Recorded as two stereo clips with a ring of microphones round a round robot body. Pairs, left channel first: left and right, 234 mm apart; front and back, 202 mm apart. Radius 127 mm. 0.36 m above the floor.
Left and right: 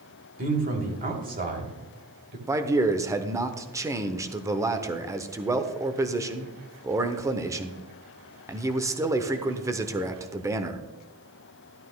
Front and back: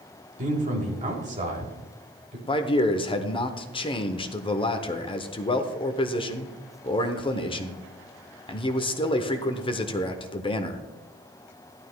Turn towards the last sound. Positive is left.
turn(degrees=-25)